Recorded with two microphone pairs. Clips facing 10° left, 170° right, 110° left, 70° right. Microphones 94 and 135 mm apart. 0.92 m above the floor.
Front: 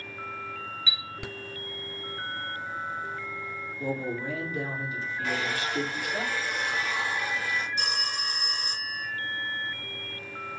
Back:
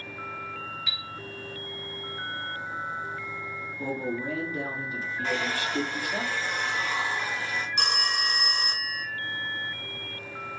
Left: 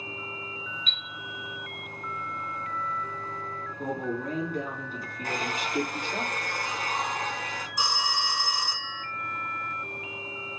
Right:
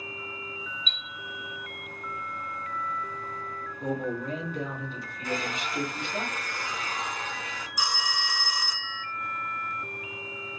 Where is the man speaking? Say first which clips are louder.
Even, right 1 dB; 145° left, 2 m.